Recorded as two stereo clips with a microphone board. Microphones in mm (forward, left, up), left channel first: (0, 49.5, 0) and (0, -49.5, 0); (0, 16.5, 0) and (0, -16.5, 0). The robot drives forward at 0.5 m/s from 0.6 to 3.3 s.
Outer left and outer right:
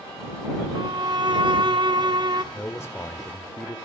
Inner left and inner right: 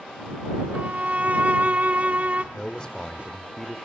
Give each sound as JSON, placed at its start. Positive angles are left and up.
{"t": 0.7, "sound": "a violin", "side_deg": -50, "distance_m": 1.1}
{"t": 2.5, "sound": "a man speaking", "side_deg": 20, "distance_m": 1.0}